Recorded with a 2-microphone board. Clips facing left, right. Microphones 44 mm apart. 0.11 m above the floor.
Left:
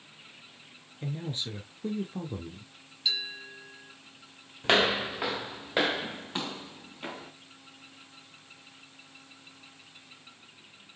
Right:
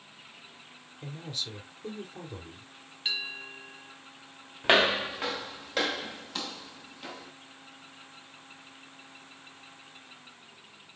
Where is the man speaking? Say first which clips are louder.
Left 4 dB; 25° left (ahead or behind), 1.3 m.